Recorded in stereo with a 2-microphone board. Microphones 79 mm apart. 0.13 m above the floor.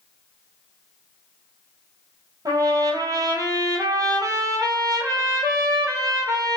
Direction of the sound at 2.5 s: 50° right (ahead or behind).